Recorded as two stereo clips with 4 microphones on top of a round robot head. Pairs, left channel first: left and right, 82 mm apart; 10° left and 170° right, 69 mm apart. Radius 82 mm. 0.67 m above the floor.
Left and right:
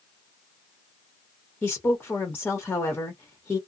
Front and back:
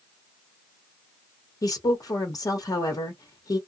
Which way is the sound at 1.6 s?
25° left.